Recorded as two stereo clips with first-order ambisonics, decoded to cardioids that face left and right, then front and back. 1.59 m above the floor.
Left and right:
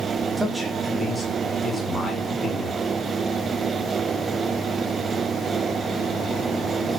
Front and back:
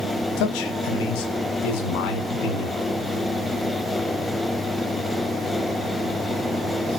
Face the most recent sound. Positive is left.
turn(degrees=5)